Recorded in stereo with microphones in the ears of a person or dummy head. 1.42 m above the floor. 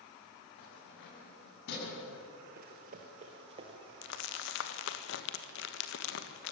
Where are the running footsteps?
45° right (ahead or behind), 2 m; by 3.9 s 25° right (ahead or behind), 2 m.